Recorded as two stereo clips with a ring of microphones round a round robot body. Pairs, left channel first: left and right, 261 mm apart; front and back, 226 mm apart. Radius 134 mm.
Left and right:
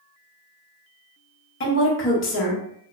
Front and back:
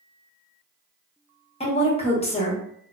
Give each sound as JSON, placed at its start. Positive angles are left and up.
{"t": 1.6, "sound": "a woman speaking", "azimuth_deg": 60, "distance_m": 1.1}